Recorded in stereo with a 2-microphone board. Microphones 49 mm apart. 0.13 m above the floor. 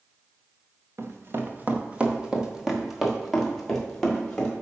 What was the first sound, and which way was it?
Running footsteps, 60° right (ahead or behind).